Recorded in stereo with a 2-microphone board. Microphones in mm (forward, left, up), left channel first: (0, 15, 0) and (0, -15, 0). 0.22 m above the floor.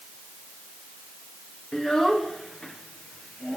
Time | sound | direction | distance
1.7 | a child speaking | 15° left (ahead or behind) | 2 m